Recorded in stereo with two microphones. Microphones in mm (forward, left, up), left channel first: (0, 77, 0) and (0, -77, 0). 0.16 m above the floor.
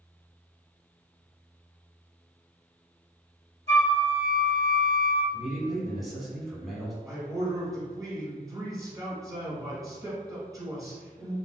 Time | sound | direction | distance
3.7 | a flute | 45° right (ahead or behind) | 0.7 m
5.3 | a man speaking | centre (ahead or behind) | 1.0 m
7.0 | a man speaking | 25° right (ahead or behind) | 1.3 m